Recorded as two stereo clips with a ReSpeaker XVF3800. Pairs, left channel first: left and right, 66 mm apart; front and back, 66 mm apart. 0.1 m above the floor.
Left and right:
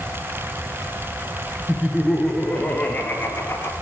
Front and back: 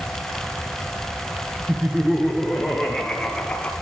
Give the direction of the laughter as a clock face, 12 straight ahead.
5 o'clock.